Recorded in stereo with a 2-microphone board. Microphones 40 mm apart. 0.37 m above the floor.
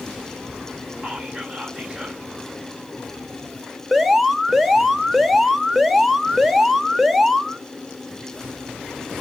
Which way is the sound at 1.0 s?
15° right (ahead or behind).